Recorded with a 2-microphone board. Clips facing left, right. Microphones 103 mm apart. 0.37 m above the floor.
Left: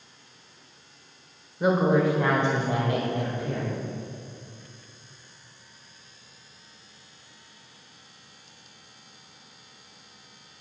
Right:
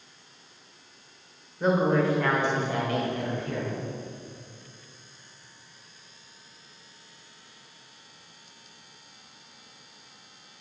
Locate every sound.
1.6 s a woman speaking: 10° left (ahead or behind), 1.1 m; by 3.8 s 35° left (ahead or behind), 1.8 m